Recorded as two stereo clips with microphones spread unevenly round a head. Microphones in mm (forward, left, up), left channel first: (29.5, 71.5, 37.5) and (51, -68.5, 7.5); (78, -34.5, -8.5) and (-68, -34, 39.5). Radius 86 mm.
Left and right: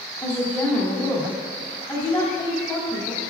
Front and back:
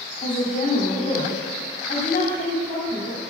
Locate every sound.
0.2 s a woman speaking: 40° left, 2.5 m